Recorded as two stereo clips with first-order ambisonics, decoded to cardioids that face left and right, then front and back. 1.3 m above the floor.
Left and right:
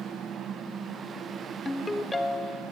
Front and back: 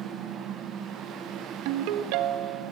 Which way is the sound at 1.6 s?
170° left.